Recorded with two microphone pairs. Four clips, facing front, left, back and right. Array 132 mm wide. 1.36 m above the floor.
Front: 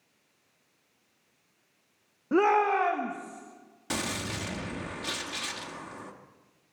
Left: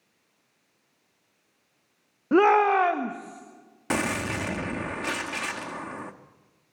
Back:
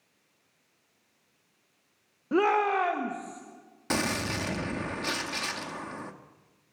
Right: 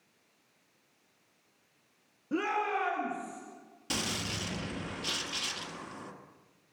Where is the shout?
85° left, 1.0 m; by 3.4 s 95° left, 2 m.